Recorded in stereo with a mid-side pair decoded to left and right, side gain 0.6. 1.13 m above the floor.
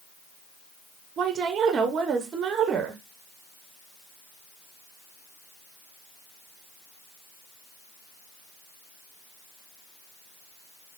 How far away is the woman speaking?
About 0.8 m.